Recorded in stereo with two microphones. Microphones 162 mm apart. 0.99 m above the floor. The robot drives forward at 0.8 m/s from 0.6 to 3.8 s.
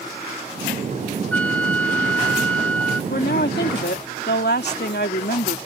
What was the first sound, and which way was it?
A flute, 5° left (ahead or behind).